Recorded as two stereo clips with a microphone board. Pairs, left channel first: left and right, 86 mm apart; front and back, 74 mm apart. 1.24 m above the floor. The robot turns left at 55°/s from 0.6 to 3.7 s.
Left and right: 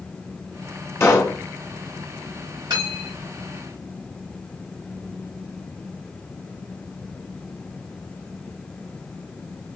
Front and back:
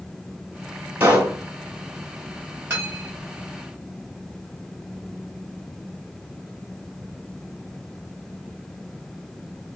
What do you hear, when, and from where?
1.0 s a pop: 135° left, 1.4 m; by 1.4 s 110° left, 1.4 m
2.7 s cutlery clinking: 120° right, 3 m; by 3.3 s 150° right, 3 m